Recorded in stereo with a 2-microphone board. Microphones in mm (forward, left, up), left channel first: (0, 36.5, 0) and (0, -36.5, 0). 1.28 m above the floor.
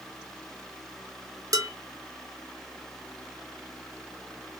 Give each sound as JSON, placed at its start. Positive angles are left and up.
{"t": 1.5, "sound": "dishes clattering", "side_deg": -50, "distance_m": 0.9}